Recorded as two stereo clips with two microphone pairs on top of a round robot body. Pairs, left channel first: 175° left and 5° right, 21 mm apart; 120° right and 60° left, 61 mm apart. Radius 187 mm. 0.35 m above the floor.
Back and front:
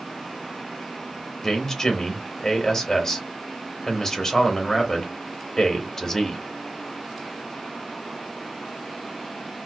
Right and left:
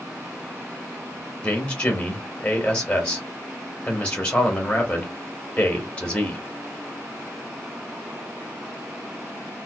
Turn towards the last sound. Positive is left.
turn(degrees=180)